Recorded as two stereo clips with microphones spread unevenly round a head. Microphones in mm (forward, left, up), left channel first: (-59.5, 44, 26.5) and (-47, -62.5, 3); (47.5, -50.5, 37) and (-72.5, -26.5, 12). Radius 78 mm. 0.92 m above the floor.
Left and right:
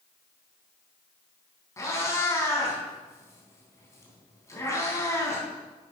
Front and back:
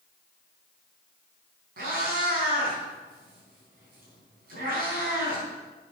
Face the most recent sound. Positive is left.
turn(degrees=155)